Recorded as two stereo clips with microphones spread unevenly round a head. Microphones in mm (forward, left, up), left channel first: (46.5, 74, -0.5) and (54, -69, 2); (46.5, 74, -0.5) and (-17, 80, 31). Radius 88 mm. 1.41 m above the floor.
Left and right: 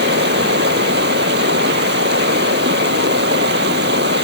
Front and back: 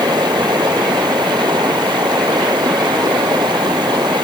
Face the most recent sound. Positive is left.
turn(degrees=-125)